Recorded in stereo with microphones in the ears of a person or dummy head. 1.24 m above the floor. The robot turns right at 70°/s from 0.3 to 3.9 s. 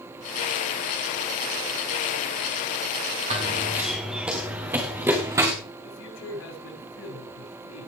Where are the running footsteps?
45° right (ahead or behind), 4.5 m; by 5.5 s 25° right (ahead or behind), 4.5 m.